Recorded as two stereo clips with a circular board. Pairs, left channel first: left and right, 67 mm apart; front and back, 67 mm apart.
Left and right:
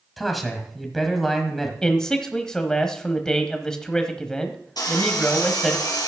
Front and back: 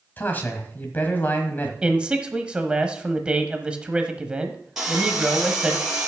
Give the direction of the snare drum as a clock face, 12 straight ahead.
No snare drum in this recording.